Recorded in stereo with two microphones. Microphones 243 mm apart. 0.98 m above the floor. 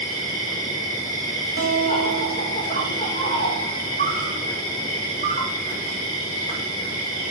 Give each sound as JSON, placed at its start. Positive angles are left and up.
{"t": 0.0, "sound": "an insect", "side_deg": 30, "distance_m": 4.0}
{"t": 1.6, "sound": "a guitar", "side_deg": 55, "distance_m": 3.0}